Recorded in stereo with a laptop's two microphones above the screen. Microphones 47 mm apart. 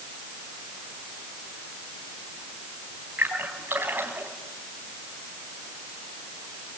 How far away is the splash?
About 4.5 m.